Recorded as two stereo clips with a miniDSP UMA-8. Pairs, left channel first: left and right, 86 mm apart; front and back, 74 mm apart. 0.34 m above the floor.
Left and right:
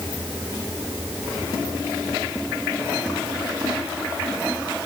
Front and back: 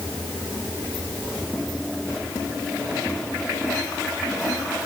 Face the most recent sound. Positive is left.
No sound to turn to.